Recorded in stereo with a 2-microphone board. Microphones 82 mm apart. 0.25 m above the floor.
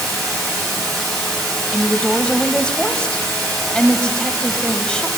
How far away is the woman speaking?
About 1.2 m.